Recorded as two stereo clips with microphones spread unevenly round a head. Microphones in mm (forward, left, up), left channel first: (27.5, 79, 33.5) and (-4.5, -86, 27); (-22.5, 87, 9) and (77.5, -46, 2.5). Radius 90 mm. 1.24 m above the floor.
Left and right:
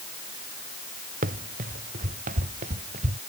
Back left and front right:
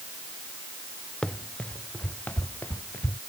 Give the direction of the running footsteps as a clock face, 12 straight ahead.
5 o'clock.